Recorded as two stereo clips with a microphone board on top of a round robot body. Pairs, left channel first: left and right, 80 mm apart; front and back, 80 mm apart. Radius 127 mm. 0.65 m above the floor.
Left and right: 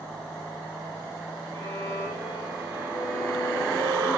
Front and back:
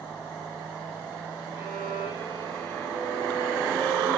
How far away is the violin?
About 9.5 m.